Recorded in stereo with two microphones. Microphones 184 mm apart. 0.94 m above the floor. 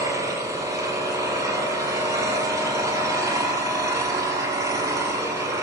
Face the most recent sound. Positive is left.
turn(degrees=-20)  # may be behind; listen again after turning